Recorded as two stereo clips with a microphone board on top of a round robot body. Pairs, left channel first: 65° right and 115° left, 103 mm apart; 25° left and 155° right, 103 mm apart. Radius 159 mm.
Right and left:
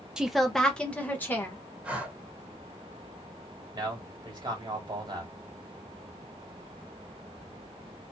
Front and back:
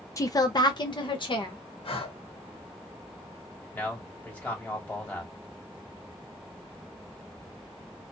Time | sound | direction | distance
0.2 | a woman speaking | 35° left | 0.7 m
1.8 | breathing | 35° left | 0.9 m
3.7 | a man speaking | 90° left | 1.5 m